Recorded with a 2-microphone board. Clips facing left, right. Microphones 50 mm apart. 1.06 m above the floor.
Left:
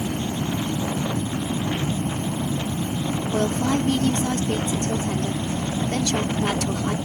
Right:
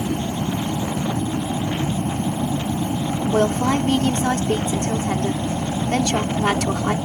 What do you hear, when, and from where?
0.0 s an aircraft: 75° right (ahead or behind); by 7.0 s 65° right (ahead or behind)
3.3 s a woman speaking: 45° right (ahead or behind)